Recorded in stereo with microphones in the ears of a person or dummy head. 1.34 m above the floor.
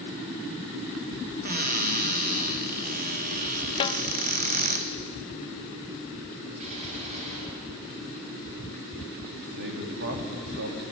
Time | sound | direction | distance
1.4 | a cupboard door | 45° right (ahead or behind) | 1.5 m
3.8 | a snare drum | 25° left (ahead or behind) | 0.6 m
6.6 | a gunshot | 40° right (ahead or behind) | 7.5 m
9.6 | a man speaking | 60° right (ahead or behind) | 3 m